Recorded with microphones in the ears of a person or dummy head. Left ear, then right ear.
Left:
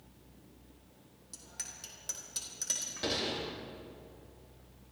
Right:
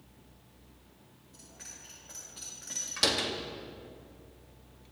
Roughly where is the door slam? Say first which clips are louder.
Right 8 dB; right.